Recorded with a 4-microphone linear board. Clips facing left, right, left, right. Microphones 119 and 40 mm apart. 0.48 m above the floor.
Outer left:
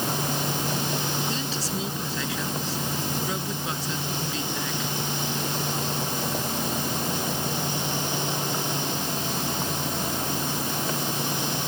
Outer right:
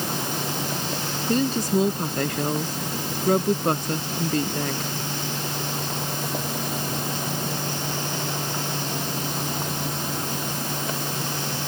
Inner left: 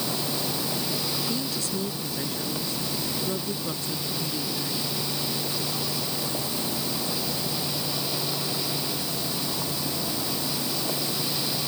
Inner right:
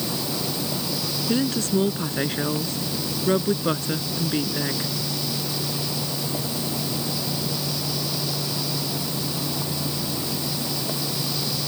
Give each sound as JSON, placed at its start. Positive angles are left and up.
{"t": 1.3, "sound": "a woman speaking", "side_deg": -55}